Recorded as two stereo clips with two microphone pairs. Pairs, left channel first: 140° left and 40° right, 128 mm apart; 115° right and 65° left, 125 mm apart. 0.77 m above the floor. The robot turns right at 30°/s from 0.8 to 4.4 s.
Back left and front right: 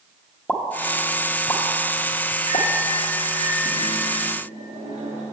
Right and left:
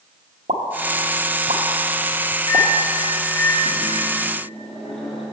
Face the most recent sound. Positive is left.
turn(degrees=-30)